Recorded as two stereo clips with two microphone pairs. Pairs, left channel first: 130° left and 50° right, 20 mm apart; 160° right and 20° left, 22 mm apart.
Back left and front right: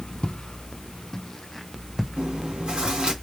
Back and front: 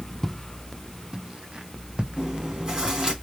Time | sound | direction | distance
0.2 | footsteps | 115° left | 0.6 m
2.2 | chewing | 35° right | 2.5 m